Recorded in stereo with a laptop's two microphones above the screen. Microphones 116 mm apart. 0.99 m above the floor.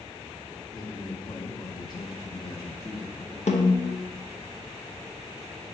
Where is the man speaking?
35° left (ahead or behind), 1.2 m; by 3.4 s 20° left (ahead or behind), 1.3 m.